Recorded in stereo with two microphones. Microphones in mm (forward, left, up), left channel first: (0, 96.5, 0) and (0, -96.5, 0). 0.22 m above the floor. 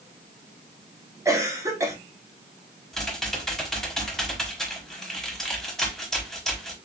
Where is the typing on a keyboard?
Centre (ahead or behind), 1.0 m.